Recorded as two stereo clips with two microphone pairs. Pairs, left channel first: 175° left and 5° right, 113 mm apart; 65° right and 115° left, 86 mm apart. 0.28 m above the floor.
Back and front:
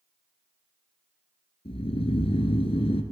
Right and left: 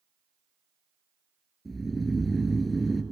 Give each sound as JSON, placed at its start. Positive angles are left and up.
{"t": 1.6, "sound": "snoring", "azimuth_deg": -155, "distance_m": 0.8}